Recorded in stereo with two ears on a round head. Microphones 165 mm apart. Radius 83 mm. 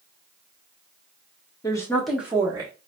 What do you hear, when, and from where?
1.6 s a woman speaking: 20° left (ahead or behind), 0.7 m; by 2.7 s 25° right (ahead or behind), 0.8 m